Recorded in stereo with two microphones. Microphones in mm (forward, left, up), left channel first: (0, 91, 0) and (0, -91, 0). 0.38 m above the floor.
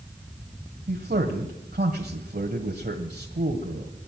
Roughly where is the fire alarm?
I don't hear a fire alarm.